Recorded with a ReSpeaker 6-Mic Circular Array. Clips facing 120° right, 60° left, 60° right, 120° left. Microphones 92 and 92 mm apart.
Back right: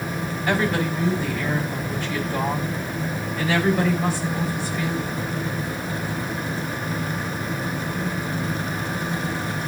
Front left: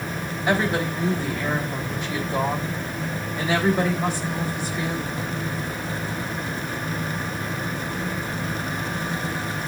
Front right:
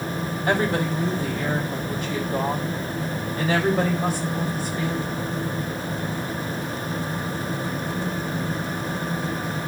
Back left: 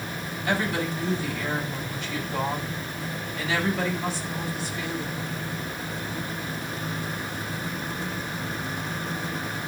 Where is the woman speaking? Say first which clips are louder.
Even, front right 4 dB; 10° right, 3.5 m.